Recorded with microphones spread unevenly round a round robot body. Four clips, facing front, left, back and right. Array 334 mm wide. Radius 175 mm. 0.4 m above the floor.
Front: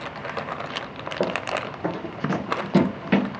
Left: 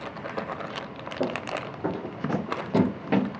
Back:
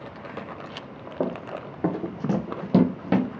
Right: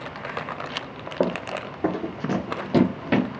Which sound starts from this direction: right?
Running footsteps, at 1.2 s.